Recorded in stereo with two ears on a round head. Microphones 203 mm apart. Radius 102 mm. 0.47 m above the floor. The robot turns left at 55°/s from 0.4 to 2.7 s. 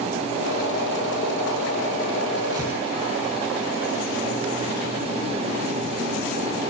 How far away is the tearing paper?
About 8 m.